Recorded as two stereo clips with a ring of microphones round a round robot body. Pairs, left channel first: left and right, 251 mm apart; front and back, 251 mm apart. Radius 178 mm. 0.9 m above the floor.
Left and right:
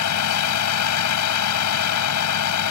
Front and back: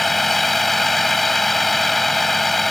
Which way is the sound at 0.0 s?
90° left.